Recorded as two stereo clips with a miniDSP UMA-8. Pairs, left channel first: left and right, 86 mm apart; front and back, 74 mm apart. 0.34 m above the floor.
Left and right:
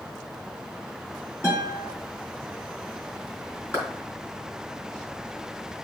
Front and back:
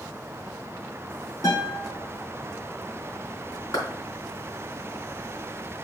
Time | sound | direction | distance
1.4 | a guitar | 30° left | 3.5 m
3.7 | a clap | 40° left | 3.5 m